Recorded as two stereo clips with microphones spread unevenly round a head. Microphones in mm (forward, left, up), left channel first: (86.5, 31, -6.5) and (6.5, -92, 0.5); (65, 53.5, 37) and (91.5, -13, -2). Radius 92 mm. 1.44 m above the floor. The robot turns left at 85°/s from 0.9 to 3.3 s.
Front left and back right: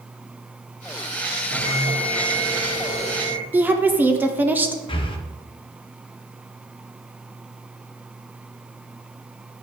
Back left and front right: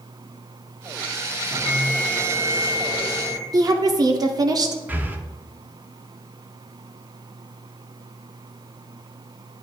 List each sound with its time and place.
1.5 s a bell: 135° right, 2 m; by 3.4 s 75° left, 2 m
3.5 s a woman speaking: 45° right, 0.7 m
4.9 s breathing: straight ahead, 0.8 m